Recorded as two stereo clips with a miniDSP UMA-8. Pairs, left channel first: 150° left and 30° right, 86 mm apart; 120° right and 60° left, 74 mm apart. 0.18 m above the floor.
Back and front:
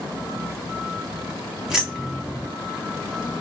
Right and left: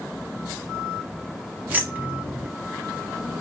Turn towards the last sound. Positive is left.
turn(degrees=40)